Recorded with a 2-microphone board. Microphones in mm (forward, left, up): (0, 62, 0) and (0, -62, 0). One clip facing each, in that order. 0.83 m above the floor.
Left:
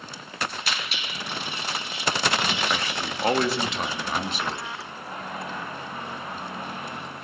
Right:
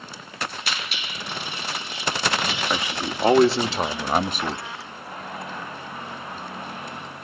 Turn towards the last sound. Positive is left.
turn(degrees=-50)  # may be behind; listen again after turning